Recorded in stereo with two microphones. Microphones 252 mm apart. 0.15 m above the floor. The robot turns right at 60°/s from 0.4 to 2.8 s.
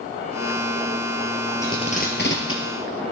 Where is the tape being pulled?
10° left (ahead or behind), 2 m; by 3.0 s 65° left (ahead or behind), 2 m.